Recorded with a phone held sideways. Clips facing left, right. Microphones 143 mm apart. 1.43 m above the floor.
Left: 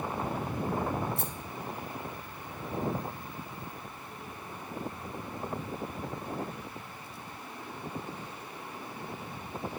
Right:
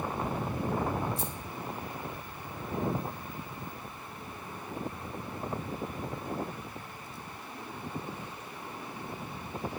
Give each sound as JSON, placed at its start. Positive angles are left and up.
{"t": 1.2, "sound": "a rattle", "side_deg": 65, "distance_m": 1.6}